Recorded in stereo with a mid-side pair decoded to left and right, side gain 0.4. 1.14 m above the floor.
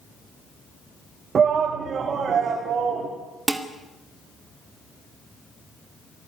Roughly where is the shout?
Ahead right.